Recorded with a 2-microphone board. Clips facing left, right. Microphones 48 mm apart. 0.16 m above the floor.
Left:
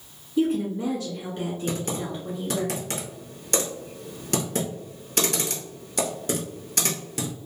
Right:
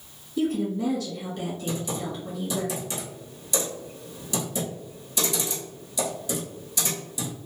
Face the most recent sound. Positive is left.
turn(degrees=60)  # may be behind; listen again after turning